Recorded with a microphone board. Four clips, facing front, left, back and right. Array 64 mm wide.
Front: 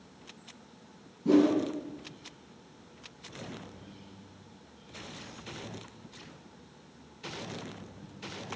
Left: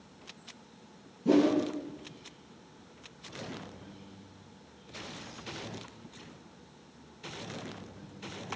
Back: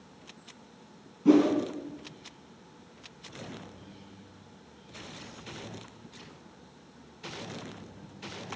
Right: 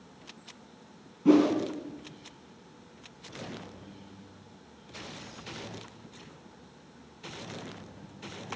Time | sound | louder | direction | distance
1.2 | a whoosh | right 3 dB, back 2 dB | 125° right | 1.1 m